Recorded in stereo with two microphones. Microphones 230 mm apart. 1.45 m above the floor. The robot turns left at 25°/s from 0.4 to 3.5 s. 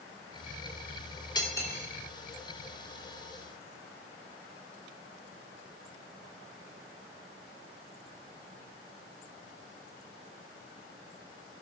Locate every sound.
1.4 s cutlery clinking: 20° left (ahead or behind), 3.5 m; by 1.9 s 5° left (ahead or behind), 3.5 m